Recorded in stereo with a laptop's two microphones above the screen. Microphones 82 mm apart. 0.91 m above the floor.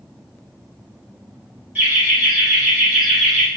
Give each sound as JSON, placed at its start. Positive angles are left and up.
{"t": 1.8, "sound": "laughter", "side_deg": -15, "distance_m": 1.9}